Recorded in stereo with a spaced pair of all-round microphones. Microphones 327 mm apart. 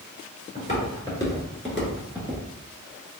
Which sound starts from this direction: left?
Footsteps, at 0.6 s.